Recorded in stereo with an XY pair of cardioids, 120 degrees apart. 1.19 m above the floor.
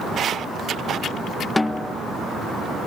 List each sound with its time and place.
1.6 s a snare drum: 15° left